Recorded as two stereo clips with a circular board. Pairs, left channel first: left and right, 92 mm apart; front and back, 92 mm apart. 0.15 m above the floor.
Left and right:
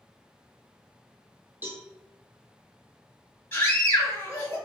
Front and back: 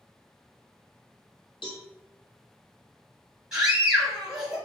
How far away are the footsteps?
No footsteps in this recording.